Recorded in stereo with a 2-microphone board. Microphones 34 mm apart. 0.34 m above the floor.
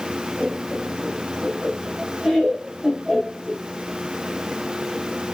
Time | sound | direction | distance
0.4 | laughter | 5° left (ahead or behind) | 1.2 m